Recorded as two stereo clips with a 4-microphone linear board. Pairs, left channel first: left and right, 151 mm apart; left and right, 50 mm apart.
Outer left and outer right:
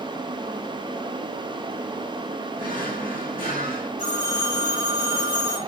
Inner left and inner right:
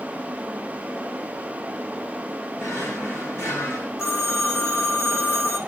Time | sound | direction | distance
2.6 | a drawer | 85° left | 5.5 m
4.0 | a phone ringing | 70° left (ahead or behind) | 8.5 m